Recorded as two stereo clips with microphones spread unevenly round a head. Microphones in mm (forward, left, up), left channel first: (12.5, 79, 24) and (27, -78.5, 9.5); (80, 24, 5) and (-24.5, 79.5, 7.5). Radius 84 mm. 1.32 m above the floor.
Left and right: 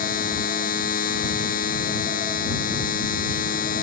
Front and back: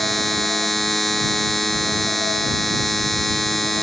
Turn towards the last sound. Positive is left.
turn(degrees=60)